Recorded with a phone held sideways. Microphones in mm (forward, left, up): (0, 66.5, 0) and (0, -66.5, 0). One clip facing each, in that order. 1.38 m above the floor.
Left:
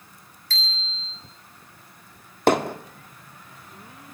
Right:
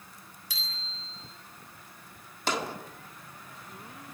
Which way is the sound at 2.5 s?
60° left (ahead or behind).